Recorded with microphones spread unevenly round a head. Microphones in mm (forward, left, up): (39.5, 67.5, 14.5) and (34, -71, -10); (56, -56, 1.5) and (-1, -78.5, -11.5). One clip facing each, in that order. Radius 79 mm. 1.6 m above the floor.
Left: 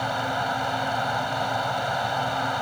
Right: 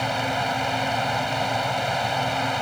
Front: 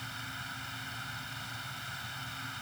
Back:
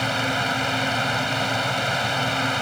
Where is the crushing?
No crushing in this recording.